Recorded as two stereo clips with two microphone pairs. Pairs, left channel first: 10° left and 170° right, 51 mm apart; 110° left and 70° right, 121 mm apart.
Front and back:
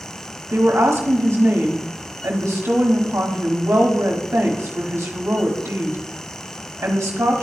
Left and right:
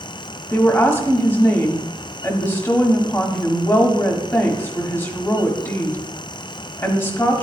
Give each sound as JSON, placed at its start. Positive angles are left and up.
{"t": 0.5, "sound": "a woman speaking", "azimuth_deg": 180, "distance_m": 1.2}